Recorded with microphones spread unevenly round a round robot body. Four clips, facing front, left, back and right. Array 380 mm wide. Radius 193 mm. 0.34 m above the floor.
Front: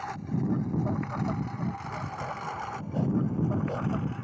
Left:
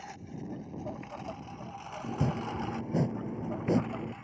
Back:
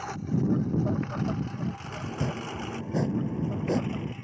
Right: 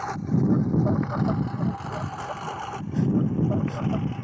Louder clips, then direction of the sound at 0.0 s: Right 17 dB, back 3 dB; 100° right.